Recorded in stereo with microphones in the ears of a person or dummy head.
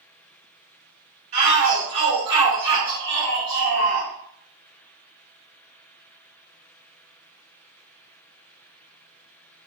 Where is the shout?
55° right (ahead or behind), 2 m; by 4.1 s 85° right, 2.5 m.